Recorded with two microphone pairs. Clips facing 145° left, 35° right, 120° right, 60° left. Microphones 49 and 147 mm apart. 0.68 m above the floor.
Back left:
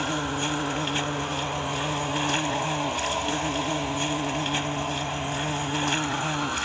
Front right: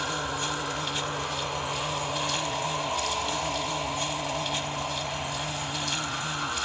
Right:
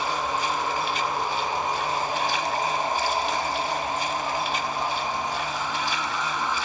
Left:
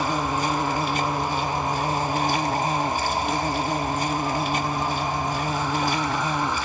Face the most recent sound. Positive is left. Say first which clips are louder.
# back left 3 dB, left 3 dB
turn(degrees=100)